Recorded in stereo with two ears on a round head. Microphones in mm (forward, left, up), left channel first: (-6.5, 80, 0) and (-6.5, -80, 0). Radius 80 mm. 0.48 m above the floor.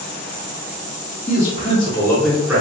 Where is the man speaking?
45° left (ahead or behind), 1.2 m; by 2.6 s 15° right (ahead or behind), 0.9 m.